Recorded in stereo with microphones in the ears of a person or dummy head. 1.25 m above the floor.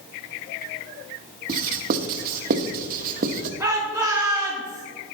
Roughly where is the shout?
Centre.